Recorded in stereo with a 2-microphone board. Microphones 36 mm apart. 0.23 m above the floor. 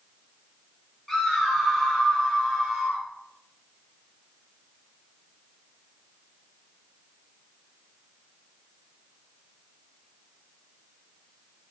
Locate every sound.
1.1 s a scream: 5° left (ahead or behind), 3.5 m; by 3.0 s 10° right (ahead or behind), 5.5 m